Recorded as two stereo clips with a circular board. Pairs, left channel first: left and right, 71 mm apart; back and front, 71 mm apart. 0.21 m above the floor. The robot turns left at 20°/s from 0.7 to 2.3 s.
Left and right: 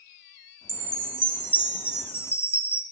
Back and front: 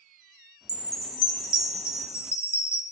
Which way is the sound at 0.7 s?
170° left.